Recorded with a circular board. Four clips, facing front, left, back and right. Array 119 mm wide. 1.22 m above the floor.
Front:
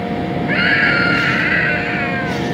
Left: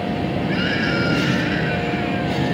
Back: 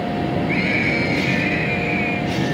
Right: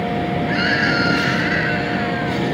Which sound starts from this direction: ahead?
A scream, at 0.5 s.